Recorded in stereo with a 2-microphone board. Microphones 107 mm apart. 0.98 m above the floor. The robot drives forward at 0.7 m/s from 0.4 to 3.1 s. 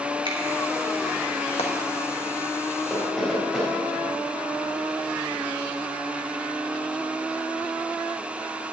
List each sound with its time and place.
0.2 s a finger snap: 50° right (ahead or behind), 2 m
1.6 s frying: 65° left (ahead or behind), 1.5 m
2.9 s knocking: centre (ahead or behind), 3.5 m